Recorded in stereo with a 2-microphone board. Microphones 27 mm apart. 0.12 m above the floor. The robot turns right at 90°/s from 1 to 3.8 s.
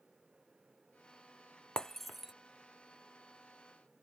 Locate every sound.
1.8 s breaking glass: 30° left (ahead or behind); by 2.3 s 20° right (ahead or behind)